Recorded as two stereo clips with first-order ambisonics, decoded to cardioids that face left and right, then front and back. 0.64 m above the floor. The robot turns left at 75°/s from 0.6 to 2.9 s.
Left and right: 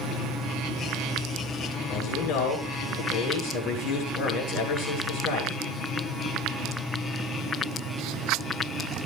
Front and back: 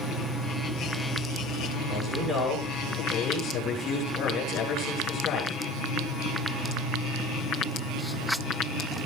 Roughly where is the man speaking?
Behind left.